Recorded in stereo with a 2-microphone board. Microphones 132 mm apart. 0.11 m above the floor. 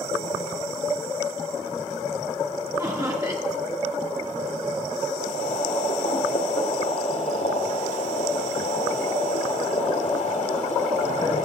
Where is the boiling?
65° left (ahead or behind), 2.5 m.